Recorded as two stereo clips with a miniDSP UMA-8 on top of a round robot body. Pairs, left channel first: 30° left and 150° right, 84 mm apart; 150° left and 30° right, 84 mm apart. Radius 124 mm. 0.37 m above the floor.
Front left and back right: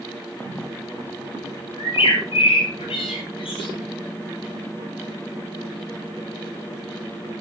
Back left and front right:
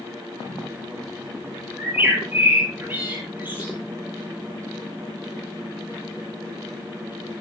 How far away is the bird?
About 9.5 m.